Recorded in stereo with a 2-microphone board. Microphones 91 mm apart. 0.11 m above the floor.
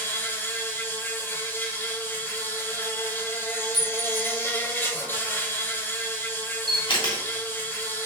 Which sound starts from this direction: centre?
A clink, at 3.7 s.